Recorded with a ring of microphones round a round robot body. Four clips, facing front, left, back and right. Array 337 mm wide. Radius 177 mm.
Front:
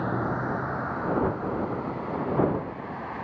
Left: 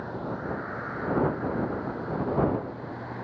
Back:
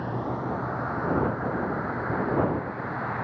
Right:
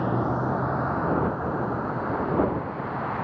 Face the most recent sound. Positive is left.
turn(degrees=-110)